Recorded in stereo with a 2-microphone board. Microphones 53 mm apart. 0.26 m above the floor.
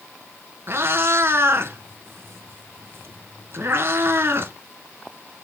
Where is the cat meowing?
50° right (ahead or behind), 1.2 m.